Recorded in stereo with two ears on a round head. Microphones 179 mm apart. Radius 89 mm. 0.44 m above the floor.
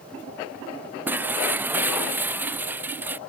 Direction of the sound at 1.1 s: 10° right (ahead or behind).